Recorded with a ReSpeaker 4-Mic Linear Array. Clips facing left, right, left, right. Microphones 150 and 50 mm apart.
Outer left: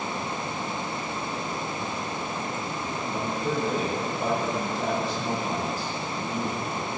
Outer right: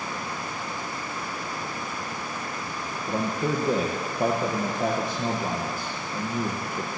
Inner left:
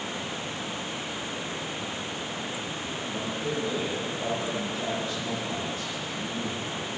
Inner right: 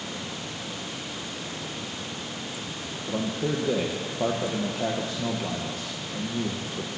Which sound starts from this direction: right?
A man speaking, at 3.1 s.